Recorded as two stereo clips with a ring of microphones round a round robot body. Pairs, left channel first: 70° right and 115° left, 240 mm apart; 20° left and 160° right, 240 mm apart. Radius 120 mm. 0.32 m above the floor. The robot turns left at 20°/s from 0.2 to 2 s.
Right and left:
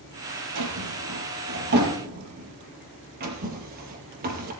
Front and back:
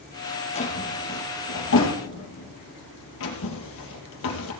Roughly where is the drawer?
Left.